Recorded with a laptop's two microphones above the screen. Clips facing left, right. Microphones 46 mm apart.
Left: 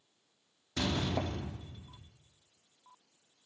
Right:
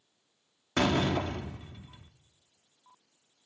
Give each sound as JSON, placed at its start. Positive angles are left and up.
{"t": 0.8, "sound": "a door slam", "side_deg": -65, "distance_m": 1.4}